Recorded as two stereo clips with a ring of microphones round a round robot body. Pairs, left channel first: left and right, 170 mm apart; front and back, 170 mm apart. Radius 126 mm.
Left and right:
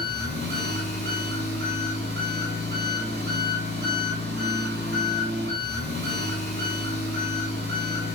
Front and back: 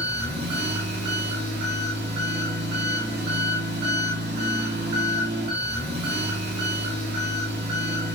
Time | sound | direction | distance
0.0 | an engine running | 135° right | 6 m